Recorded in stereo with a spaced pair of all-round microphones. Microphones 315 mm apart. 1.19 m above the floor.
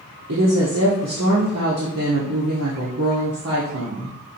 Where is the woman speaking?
55° right (ahead or behind), 0.8 m.